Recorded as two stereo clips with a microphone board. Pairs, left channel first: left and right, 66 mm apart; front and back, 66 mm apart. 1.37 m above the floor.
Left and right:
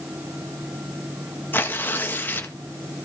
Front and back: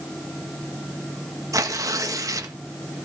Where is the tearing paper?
150° left, 1.7 m.